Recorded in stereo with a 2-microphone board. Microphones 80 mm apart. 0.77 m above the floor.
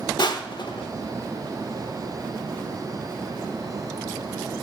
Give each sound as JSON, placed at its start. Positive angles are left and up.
{"t": 0.2, "sound": "crushing", "side_deg": 70, "distance_m": 0.6}